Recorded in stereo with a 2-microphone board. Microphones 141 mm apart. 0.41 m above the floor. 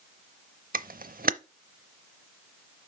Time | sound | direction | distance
0.7 | a camera shutter | 80° right | 0.5 m